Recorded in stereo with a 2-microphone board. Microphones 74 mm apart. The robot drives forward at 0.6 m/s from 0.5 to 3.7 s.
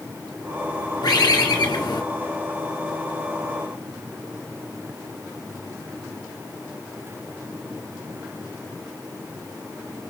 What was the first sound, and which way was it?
A bird, 75° left (ahead or behind).